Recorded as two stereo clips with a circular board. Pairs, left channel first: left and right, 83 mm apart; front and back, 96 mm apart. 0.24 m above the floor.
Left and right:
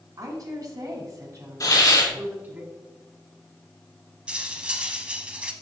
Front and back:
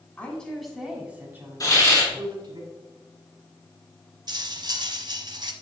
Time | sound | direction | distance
0.2 | a woman speaking | 70° right | 2.5 m
1.6 | a hiss | 50° left | 3 m
4.3 | cutlery clinking | 165° right | 0.8 m